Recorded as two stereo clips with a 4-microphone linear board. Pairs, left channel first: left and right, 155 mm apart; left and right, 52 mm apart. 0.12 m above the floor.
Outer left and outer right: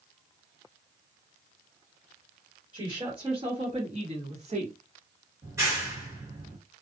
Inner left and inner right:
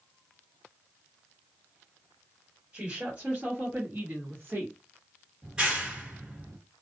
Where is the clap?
20° right (ahead or behind), 1.7 m.